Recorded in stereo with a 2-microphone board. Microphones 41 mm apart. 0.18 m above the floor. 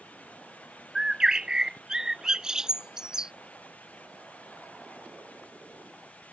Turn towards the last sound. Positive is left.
turn(degrees=-15)  # may be behind; listen again after turning